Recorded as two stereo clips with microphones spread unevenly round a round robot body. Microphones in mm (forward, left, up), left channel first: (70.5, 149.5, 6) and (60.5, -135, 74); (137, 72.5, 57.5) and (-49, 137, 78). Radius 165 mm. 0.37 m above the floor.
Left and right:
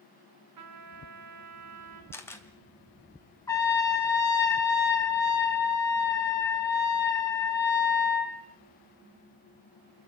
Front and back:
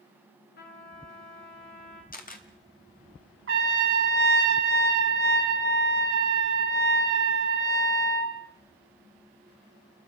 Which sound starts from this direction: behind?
A trumpet, at 3.5 s.